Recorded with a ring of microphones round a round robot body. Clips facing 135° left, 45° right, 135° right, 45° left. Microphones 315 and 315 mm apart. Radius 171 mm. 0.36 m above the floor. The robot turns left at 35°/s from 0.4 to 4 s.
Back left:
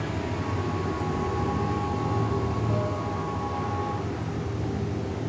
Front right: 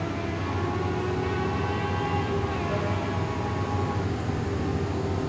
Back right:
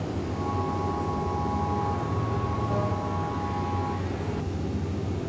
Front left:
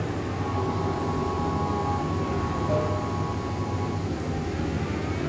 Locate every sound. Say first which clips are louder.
0.0 s running water: even, front left 1 dB; 135° left, 4.5 m; by 5.3 s 10° left, 4.5 m